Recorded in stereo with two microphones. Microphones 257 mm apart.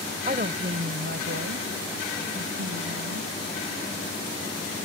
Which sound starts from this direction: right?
A woman speaking, at 0.3 s.